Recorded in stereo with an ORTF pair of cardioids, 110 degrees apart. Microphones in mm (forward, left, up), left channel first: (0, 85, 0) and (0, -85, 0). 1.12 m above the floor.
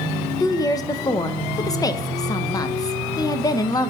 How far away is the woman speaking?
About 0.6 m.